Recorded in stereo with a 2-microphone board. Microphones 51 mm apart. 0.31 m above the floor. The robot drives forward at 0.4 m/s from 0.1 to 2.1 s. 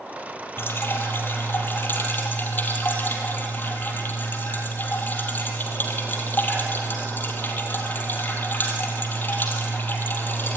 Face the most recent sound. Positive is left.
turn(degrees=40)  # may be behind; listen again after turning